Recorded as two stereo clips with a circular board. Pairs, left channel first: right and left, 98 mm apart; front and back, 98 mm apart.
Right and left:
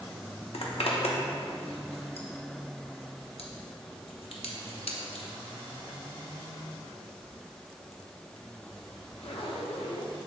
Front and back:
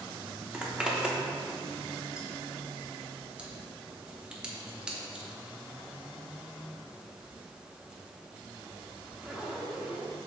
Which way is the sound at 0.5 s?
100° right.